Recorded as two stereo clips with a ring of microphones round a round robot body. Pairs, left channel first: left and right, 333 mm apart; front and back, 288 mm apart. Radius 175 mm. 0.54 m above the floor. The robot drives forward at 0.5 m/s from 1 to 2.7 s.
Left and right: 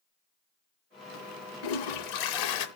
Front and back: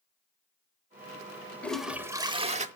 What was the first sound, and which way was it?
A toilet flushing, 85° left.